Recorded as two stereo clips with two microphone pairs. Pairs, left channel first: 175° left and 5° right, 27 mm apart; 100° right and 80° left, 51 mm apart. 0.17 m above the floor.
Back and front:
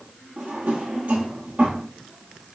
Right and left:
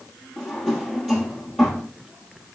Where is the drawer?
10° right, 1.7 m.